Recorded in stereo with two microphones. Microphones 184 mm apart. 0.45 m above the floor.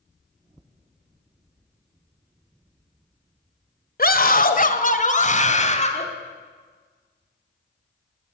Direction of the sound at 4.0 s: 55° left (ahead or behind).